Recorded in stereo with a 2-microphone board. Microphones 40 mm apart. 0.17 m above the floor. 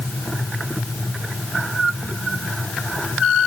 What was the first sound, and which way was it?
Only background noise.